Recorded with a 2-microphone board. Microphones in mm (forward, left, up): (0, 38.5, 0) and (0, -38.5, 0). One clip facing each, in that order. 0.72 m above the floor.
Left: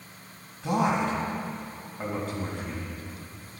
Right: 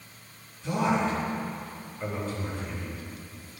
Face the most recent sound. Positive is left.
turn(degrees=60)  # may be behind; listen again after turning